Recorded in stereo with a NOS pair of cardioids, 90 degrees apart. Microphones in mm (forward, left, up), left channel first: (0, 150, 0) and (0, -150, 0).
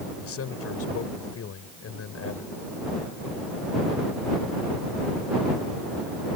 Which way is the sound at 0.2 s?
50° left.